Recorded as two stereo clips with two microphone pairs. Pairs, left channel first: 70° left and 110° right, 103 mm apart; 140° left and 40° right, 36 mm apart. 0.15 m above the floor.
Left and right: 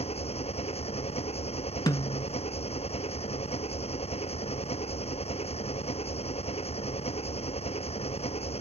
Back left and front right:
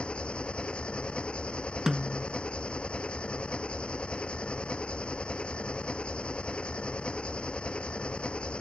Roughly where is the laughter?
I don't hear laughter.